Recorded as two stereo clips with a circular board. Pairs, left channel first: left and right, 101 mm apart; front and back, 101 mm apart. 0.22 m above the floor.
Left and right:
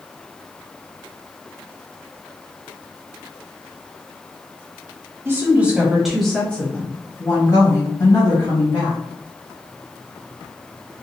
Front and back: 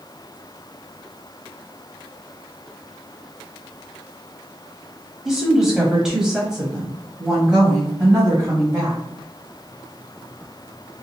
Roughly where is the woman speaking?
Right.